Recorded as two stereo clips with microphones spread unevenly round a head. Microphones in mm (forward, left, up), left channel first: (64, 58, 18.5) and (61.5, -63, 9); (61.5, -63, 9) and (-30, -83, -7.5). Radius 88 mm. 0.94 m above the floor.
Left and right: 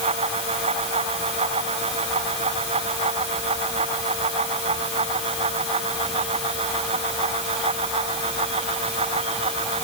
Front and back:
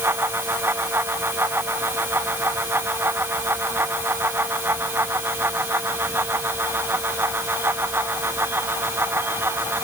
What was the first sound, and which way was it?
Only background noise.